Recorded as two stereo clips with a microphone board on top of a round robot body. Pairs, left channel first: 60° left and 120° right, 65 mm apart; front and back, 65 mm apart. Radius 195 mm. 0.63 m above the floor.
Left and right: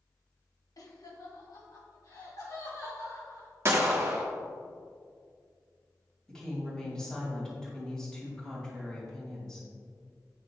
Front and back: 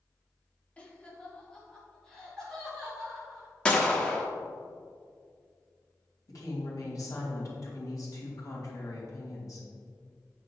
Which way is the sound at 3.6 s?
75° right.